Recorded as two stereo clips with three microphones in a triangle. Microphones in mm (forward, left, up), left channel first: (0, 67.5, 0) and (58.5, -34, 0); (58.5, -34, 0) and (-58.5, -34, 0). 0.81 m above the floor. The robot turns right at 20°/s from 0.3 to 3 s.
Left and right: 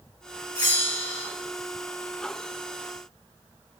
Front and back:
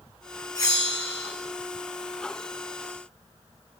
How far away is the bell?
About 3.5 m.